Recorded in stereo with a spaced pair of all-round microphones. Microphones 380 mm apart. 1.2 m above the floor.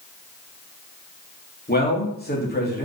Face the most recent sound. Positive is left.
turn(degrees=25)  # may be behind; listen again after turning